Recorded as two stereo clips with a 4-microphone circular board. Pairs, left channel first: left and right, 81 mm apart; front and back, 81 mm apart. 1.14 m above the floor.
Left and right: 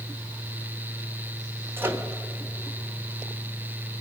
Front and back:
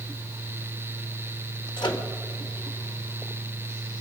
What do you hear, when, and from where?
1.8 s a microwave: 25° right, 1.1 m